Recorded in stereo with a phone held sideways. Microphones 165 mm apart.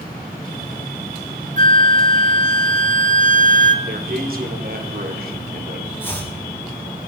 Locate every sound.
1.6 s a flute: 50° right (ahead or behind), 0.8 m
3.9 s a man speaking: 65° right (ahead or behind), 2.5 m
6.0 s chopping: 15° left (ahead or behind), 7 m